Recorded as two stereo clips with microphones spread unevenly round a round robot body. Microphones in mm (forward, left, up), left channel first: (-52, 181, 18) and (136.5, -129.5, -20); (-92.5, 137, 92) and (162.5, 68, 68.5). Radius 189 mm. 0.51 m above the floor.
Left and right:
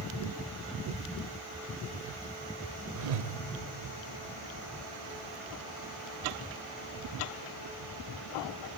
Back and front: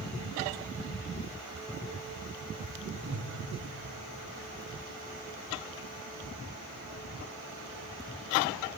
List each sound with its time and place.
3.0 s a whoosh: 75° right, 0.6 m